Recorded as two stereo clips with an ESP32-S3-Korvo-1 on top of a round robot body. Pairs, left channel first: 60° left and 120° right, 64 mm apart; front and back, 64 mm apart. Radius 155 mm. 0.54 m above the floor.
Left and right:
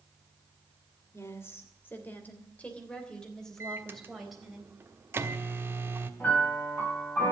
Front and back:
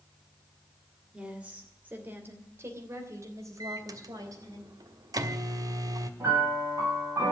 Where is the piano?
130° left, 9.5 m.